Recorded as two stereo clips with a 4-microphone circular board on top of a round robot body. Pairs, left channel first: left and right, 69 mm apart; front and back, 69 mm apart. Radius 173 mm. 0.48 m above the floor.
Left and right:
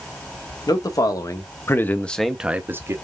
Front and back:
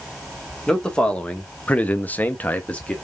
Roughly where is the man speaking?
Left.